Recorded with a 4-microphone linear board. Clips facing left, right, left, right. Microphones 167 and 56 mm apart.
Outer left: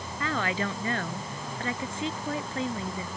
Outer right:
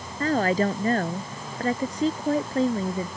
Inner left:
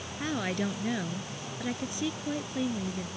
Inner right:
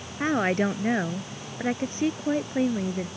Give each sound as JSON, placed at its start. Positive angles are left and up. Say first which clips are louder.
{"t": 0.2, "sound": "a woman speaking", "louder": "outer right 8 dB, inner right 8 dB", "side_deg": -40}